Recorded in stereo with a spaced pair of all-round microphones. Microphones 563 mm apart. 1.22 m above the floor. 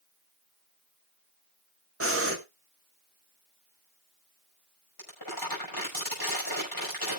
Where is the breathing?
25° right (ahead or behind), 1.7 m.